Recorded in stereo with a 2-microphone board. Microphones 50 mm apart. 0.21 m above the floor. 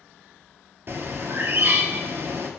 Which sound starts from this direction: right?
A bird, at 0.9 s.